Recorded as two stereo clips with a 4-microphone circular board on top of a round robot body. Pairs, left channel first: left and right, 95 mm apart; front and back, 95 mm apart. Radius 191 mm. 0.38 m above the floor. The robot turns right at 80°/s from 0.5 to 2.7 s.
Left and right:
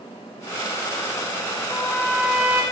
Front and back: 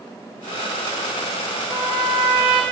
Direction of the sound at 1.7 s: 135° left.